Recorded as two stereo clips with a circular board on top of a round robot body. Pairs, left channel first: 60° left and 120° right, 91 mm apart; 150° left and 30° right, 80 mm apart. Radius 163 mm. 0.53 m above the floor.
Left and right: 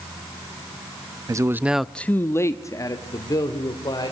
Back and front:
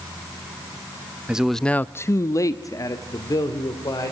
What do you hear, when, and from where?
1.3 s a man speaking: 100° right, 0.7 m; by 4.1 s 105° left, 2.5 m